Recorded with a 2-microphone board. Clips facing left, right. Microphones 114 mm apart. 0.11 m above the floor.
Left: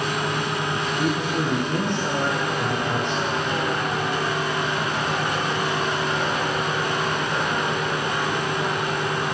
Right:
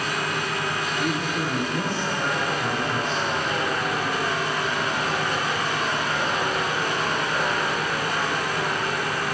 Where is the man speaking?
70° left (ahead or behind), 4.5 m.